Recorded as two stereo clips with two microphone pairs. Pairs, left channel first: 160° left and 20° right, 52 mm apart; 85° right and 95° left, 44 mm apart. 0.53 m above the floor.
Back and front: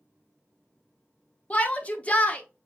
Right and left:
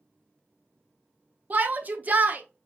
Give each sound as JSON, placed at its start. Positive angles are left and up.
{"t": 1.5, "sound": "a shout", "azimuth_deg": 110, "distance_m": 0.9}